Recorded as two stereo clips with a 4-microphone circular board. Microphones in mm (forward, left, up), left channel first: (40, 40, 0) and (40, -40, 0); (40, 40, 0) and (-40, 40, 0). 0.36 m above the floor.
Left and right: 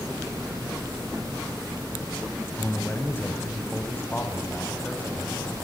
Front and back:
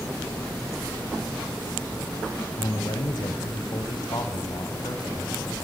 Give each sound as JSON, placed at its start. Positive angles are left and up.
{"t": 2.6, "sound": "a man speaking", "azimuth_deg": 25, "distance_m": 3.0}